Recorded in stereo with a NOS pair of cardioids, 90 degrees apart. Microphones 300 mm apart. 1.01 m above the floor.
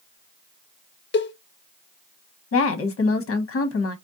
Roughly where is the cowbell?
Ahead left.